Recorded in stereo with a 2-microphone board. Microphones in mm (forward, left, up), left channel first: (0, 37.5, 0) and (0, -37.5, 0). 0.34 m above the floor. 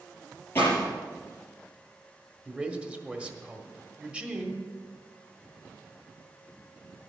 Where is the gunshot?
30° left (ahead or behind), 5 m.